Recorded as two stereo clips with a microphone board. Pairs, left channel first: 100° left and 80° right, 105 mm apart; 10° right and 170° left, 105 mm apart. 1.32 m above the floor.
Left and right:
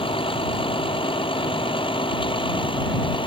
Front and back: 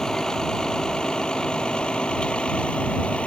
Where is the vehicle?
75° left; by 3.3 s 70° left.